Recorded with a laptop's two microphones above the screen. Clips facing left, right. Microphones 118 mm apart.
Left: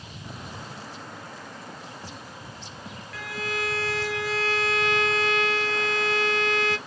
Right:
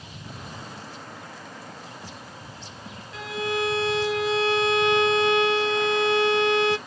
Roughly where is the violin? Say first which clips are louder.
Right 5 dB; right.